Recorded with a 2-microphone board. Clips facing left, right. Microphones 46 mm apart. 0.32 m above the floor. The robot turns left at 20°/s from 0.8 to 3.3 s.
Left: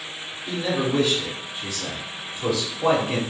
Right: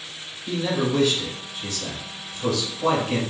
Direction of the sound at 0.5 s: 5° left (ahead or behind).